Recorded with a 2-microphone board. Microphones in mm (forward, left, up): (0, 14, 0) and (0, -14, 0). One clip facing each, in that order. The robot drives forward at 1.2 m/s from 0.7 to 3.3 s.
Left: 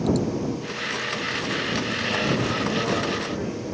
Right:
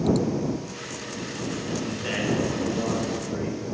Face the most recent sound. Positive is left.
turn(degrees=-10)  # may be behind; listen again after turning